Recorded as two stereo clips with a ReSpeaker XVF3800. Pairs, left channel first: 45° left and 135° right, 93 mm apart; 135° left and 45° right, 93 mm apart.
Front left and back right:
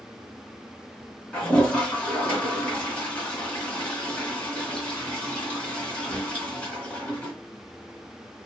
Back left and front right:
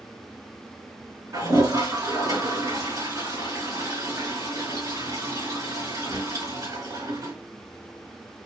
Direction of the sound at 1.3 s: 25° right.